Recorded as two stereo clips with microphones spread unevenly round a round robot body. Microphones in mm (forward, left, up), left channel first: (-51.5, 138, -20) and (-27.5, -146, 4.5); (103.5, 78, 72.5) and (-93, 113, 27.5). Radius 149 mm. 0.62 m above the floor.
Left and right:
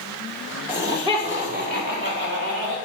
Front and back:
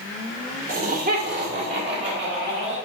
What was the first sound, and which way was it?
Laughter, 175° right.